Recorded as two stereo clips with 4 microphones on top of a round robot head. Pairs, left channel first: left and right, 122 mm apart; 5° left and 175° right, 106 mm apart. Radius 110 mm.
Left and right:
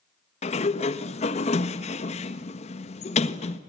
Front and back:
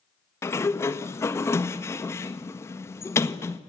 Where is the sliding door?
70° left, 1.3 m.